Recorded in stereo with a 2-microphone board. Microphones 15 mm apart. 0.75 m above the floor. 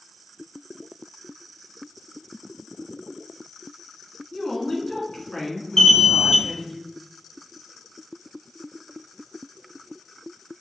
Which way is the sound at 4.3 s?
30° left (ahead or behind).